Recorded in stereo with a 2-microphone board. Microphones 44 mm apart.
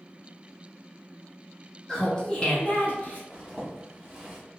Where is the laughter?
15° left (ahead or behind), 0.9 m; by 3.2 s 30° left (ahead or behind), 0.8 m.